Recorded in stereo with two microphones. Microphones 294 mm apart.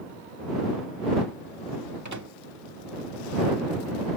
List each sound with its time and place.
2.0 s a microwave: 75° right (ahead or behind)